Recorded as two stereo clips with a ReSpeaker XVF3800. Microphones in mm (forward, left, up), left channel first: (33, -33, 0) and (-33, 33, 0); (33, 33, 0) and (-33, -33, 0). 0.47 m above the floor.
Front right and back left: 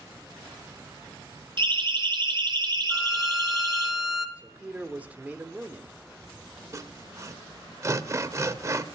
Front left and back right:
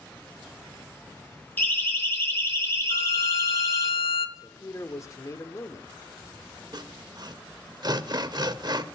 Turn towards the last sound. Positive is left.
turn(degrees=-170)